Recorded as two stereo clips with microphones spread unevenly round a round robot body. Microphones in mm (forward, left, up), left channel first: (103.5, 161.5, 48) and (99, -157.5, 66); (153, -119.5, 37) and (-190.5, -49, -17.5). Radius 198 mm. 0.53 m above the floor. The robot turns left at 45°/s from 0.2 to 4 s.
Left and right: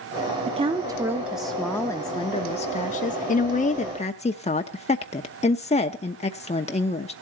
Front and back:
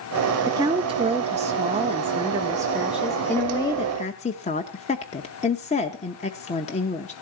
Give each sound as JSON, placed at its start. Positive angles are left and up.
{"t": 0.5, "sound": "a woman speaking", "azimuth_deg": -145, "distance_m": 0.7}